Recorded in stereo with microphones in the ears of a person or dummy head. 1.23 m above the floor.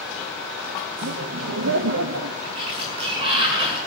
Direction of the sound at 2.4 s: 30° right (ahead or behind).